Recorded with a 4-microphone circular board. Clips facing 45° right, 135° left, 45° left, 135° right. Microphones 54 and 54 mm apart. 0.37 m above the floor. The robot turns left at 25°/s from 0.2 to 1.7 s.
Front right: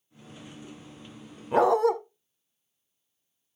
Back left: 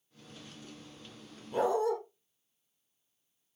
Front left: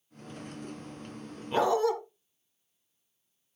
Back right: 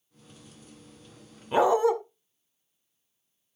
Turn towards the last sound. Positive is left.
turn(degrees=-65)